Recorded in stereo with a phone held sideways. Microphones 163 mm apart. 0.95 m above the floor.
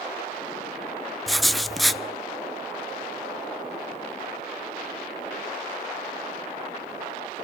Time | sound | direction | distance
1.3 | writing | centre (ahead or behind) | 0.7 m